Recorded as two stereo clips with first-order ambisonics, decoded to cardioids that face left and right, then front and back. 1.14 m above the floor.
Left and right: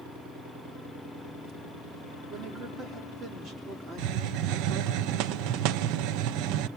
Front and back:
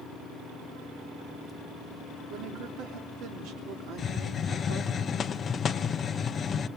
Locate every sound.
2.3 s a woman speaking: 150° right, 3.5 m
4.0 s a hiss: 70° right, 0.7 m